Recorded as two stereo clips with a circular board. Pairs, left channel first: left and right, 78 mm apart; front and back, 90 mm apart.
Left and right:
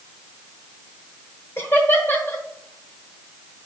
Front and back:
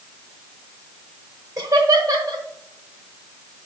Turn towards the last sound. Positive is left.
turn(degrees=145)